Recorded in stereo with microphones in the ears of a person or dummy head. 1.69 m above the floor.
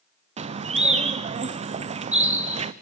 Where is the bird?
40° right (ahead or behind), 0.7 m.